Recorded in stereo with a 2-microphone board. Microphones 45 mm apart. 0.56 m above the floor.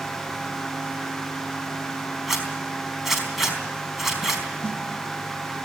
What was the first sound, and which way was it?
A zipper, 5° right (ahead or behind).